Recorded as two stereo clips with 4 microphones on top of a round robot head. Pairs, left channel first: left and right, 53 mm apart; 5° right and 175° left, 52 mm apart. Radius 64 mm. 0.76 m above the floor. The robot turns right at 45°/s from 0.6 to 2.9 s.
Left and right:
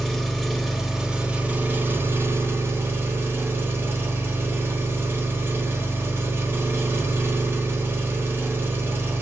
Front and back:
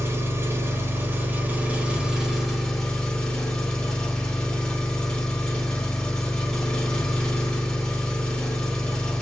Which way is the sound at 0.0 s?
175° left.